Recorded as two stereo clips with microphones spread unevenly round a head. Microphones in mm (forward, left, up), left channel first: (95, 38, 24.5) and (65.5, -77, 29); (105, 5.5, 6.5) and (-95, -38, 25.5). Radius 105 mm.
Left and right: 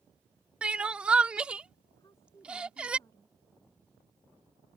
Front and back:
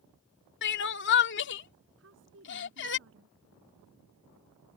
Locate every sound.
0.6 s crying: 25° right
2.0 s a woman speaking: 155° left